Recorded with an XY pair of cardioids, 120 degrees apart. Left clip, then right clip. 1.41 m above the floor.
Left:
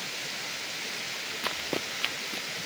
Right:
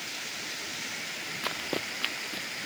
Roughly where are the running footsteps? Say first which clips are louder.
Even; ahead.